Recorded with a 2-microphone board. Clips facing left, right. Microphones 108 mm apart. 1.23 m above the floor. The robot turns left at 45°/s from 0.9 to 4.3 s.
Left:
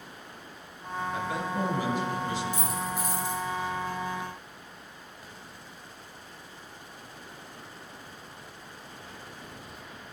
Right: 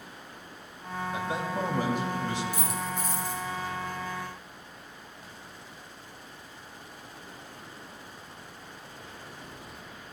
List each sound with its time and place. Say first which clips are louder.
1.1 s a man speaking: even; 20° right, 2.5 m; by 2.4 s 80° right, 2.5 m
2.5 s a dropped coin: left 1 dB; 170° right, 2.5 m; by 3.4 s 150° left, 2.5 m